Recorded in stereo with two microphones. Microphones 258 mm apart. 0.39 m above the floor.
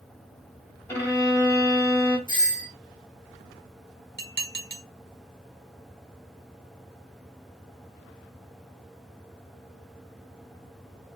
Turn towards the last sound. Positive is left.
turn(degrees=-40)  # may be behind; listen again after turning